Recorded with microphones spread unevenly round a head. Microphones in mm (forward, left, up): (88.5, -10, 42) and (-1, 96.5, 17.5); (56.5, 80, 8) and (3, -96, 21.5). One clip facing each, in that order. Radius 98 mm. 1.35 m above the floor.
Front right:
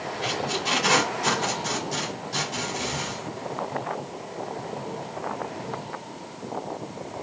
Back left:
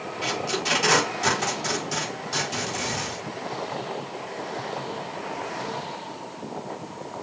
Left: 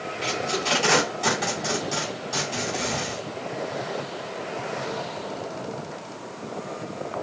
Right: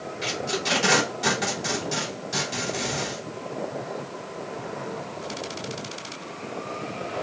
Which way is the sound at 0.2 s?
Straight behind.